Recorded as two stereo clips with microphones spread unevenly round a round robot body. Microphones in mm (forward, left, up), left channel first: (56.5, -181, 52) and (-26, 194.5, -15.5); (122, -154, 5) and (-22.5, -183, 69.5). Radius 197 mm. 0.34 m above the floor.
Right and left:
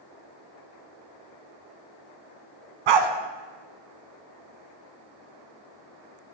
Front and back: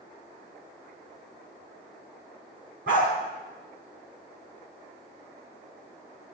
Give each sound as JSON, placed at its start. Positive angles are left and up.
{"t": 2.9, "sound": "a dog barking", "azimuth_deg": 125, "distance_m": 1.1}